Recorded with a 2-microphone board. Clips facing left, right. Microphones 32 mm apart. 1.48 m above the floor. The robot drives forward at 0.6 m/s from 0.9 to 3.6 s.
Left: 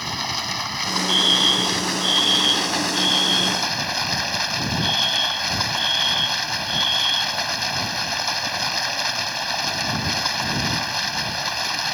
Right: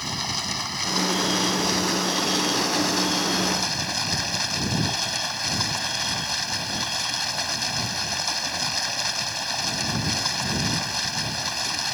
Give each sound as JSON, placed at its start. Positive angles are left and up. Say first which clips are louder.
{"t": 0.0, "sound": "running water", "louder": "left 3 dB", "side_deg": 15}
{"t": 1.1, "sound": "a fire alarm", "louder": "left 10 dB", "side_deg": 60}